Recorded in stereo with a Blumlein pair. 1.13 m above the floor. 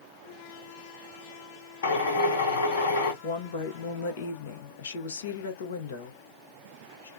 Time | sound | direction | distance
1.8 | a drill | 60° left | 1.5 m
3.2 | a woman speaking | 60° left | 1.0 m